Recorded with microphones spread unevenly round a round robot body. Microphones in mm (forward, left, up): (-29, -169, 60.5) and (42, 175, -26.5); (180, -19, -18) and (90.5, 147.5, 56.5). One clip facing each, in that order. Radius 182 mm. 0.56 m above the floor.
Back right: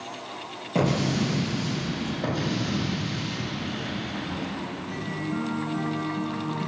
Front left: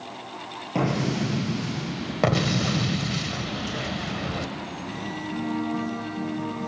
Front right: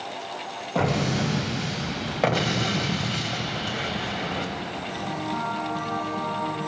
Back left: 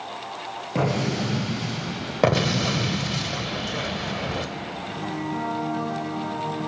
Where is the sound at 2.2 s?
80° left, 0.9 m.